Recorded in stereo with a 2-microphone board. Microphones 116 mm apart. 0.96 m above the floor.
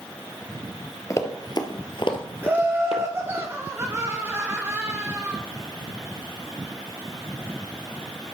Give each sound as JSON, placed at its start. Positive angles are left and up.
{"t": 1.1, "sound": "running footsteps", "side_deg": 25, "distance_m": 1.3}
{"t": 2.4, "sound": "laughter", "side_deg": -20, "distance_m": 1.0}